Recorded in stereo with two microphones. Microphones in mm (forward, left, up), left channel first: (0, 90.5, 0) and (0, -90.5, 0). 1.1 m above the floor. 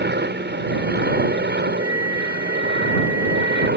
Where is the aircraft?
70° right (ahead or behind); by 3.8 s 75° right (ahead or behind).